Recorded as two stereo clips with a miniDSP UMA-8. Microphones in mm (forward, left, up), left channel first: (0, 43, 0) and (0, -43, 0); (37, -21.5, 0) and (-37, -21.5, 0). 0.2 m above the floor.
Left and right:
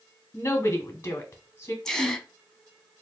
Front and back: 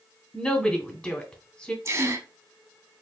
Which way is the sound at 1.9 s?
170° left.